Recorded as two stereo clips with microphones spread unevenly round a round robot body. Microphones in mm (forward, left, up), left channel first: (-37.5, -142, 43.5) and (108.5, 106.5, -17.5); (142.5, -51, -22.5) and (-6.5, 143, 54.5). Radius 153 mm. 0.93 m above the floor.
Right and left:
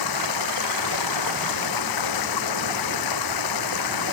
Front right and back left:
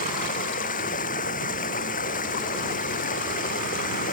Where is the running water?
120° right.